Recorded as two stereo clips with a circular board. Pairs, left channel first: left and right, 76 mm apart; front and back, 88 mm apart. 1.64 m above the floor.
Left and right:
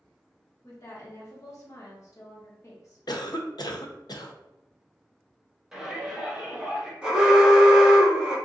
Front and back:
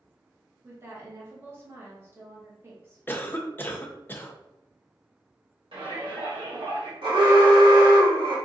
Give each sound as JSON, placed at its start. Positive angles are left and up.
{"t": 0.6, "sound": "a woman speaking", "azimuth_deg": 125, "distance_m": 0.8}
{"t": 3.1, "sound": "a cough", "azimuth_deg": 65, "distance_m": 0.5}
{"t": 5.7, "sound": "a shout", "azimuth_deg": -175, "distance_m": 1.5}
{"t": 7.0, "sound": "an alarm", "azimuth_deg": -170, "distance_m": 1.4}